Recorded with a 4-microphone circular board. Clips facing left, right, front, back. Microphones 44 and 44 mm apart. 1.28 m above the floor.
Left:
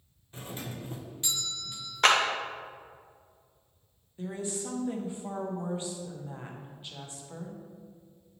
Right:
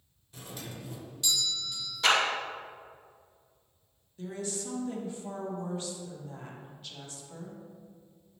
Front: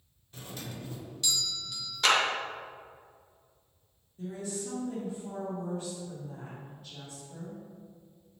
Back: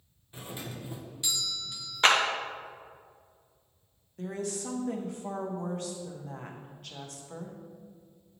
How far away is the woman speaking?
About 1.0 m.